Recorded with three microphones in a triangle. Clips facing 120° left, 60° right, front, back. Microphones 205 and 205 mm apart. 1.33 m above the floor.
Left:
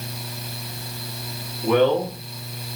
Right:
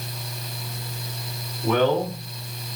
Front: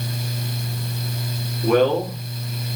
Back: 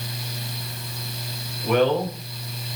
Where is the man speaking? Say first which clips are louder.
Left 3 dB, front 3 dB; 45° left, 3 m.